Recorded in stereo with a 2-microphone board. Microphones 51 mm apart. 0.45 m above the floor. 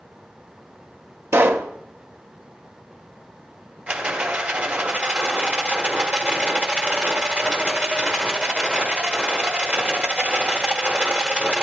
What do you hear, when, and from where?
1.3 s a pop: 50° right (ahead or behind), 0.7 m
3.9 s a rattle: 30° right (ahead or behind), 1.4 m